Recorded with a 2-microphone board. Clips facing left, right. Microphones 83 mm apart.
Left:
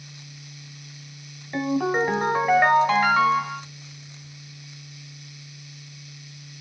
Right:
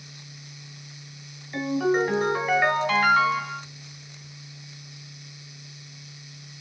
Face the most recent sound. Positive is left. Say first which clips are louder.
# even
turn(degrees=35)  # may be behind; listen again after turning